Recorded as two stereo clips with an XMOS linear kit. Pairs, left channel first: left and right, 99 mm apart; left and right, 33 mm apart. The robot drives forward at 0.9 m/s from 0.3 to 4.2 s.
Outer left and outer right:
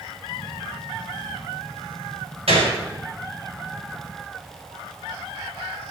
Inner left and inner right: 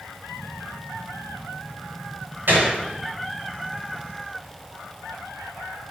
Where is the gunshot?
85° right, 5 m.